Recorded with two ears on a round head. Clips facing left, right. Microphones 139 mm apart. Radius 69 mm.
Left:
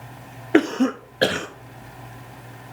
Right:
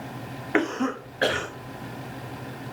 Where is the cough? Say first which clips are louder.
Left 7 dB; 40° left (ahead or behind), 1.1 m.